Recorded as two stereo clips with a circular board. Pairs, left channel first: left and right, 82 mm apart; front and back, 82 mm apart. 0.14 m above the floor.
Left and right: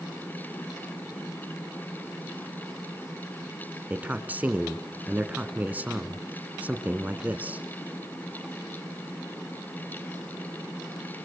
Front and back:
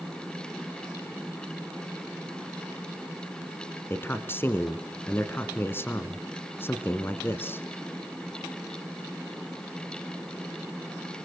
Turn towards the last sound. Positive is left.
turn(degrees=-35)